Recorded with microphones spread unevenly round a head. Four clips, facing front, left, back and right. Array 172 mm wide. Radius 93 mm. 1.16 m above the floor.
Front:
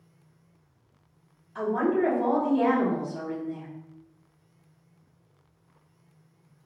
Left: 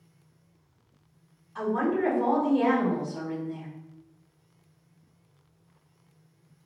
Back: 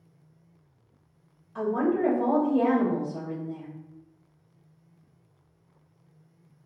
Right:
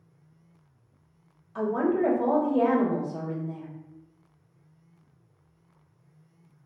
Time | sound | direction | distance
1.6 | a woman speaking | 100° right | 2 m